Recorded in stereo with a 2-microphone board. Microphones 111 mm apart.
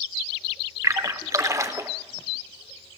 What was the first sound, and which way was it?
A splash, 30° right (ahead or behind).